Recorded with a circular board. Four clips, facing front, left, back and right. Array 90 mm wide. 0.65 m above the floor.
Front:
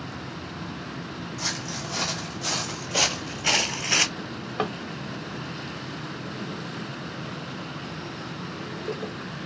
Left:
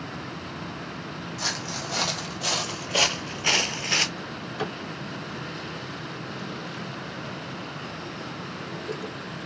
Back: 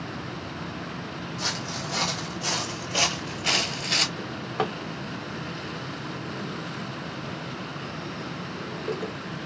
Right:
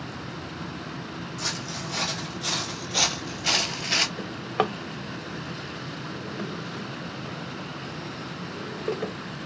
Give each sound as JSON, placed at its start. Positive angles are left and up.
{"t": 1.4, "sound": "footsteps", "azimuth_deg": 110, "distance_m": 1.4}
{"t": 4.2, "sound": "a drawer", "azimuth_deg": -95, "distance_m": 0.6}